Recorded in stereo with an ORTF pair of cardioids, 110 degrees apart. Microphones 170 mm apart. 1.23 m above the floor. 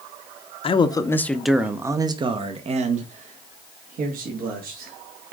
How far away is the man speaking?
About 0.8 m.